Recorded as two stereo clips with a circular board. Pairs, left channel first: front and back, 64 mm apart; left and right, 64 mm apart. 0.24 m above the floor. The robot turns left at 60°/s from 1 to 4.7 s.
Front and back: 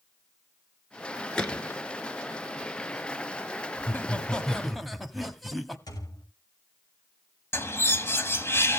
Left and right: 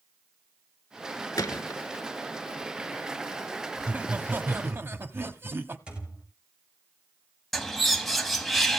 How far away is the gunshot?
About 1.4 m.